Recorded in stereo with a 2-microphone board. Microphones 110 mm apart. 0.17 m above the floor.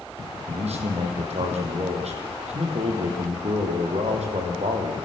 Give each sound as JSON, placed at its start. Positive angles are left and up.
{"t": 0.5, "sound": "a man speaking", "side_deg": -75, "distance_m": 7.0}